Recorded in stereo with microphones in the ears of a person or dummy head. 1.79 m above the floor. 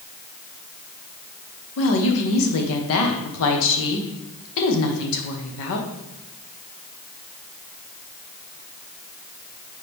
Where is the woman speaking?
65° left (ahead or behind), 1.3 m.